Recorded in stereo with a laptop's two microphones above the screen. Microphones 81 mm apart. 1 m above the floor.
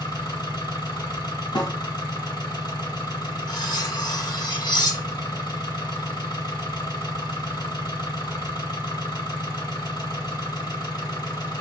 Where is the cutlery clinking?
60° left (ahead or behind), 1.7 m.